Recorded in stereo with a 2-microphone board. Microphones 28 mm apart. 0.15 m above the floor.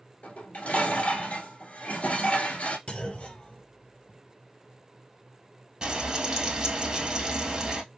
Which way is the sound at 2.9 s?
45° left (ahead or behind).